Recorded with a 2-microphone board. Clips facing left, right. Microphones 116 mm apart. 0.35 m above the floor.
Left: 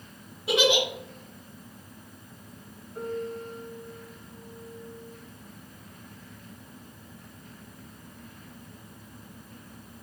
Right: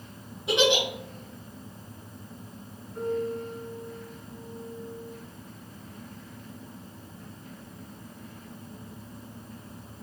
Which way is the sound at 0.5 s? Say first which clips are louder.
Even; 5° left (ahead or behind).